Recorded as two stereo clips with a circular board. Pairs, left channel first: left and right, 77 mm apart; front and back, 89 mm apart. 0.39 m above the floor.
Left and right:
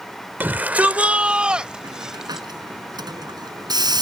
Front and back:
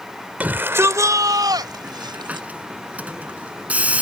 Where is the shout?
125° right; by 2.5 s 175° right.